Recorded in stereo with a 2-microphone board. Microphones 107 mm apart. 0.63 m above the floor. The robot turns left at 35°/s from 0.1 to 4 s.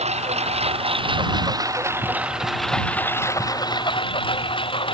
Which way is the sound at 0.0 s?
90° right.